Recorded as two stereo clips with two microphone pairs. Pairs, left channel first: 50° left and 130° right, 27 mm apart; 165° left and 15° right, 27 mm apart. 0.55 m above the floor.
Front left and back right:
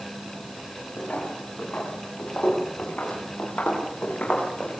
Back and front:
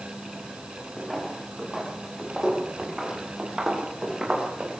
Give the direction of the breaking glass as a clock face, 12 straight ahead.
I don't hear breaking glass.